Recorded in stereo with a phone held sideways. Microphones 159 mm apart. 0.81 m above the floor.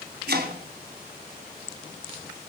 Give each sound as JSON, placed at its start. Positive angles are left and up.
{"t": 0.3, "sound": "chopping", "side_deg": -80, "distance_m": 3.0}